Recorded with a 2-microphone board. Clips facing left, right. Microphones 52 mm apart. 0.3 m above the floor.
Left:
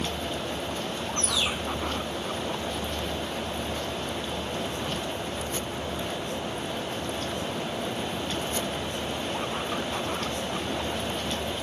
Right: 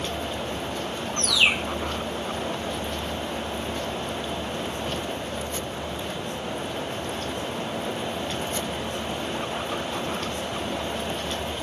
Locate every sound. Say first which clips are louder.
1.2 s a bird: right 8 dB; 75° right (ahead or behind)